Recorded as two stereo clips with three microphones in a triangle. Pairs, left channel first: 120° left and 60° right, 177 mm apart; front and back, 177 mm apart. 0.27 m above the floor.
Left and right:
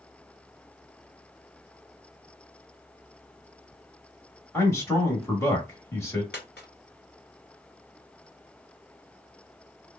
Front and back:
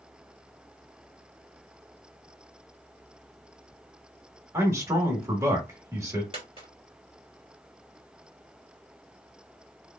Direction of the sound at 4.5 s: 155° left.